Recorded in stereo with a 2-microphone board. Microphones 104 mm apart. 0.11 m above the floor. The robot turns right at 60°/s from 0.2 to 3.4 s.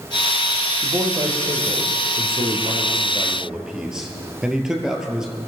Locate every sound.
0.8 s a man speaking: 160° right, 2 m; by 5.3 s 10° right, 2 m